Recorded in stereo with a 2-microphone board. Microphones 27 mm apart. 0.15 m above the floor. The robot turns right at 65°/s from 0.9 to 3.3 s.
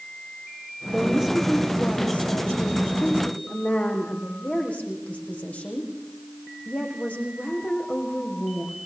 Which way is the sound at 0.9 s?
40° right.